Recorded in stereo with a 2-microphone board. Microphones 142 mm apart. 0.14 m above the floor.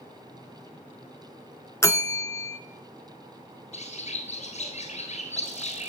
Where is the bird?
55° left (ahead or behind), 1.4 m.